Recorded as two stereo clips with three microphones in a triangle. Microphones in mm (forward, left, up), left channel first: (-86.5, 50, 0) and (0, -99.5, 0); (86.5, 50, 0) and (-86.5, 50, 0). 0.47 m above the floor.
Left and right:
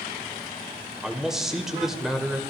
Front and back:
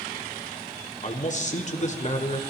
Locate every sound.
1.0 s a man speaking: 25° left, 1.6 m